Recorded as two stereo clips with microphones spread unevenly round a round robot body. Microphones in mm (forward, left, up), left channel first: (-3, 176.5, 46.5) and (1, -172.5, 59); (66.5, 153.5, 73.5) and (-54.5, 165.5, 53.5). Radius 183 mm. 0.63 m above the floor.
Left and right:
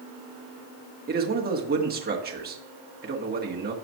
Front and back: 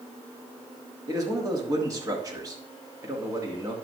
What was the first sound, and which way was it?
A man speaking, 145° right.